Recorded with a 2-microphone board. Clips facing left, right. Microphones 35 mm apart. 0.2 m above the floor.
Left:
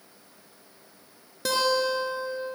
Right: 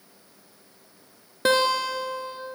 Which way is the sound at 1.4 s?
40° right (ahead or behind).